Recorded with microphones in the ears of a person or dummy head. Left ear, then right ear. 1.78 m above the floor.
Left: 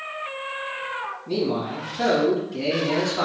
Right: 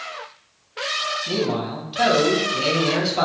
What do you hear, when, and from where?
1.3 s a man speaking: 60° right (ahead or behind), 1.9 m